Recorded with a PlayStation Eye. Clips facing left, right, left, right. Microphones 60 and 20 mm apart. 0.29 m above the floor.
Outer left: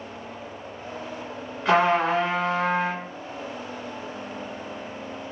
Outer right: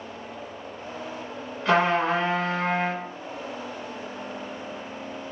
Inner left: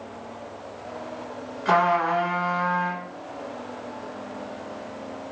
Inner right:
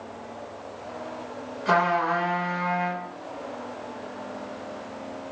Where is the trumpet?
5° left (ahead or behind), 1.2 m.